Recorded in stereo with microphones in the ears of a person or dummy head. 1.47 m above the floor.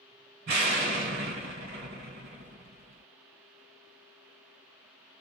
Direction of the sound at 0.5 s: 50° right (ahead or behind).